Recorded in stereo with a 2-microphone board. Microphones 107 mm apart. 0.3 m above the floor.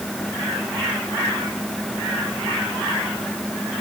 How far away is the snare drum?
No snare drum in this recording.